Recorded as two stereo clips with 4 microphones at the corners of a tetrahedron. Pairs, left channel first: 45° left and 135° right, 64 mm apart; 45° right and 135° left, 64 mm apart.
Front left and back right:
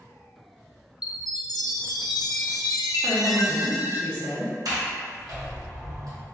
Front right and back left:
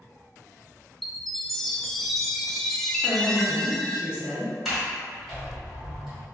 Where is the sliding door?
135° right, 1.9 m.